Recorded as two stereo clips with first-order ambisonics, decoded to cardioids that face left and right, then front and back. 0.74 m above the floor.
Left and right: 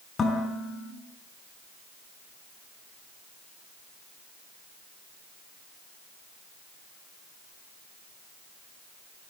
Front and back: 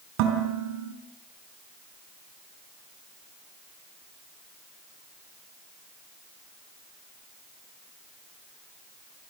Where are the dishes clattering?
160° left, 4.5 m.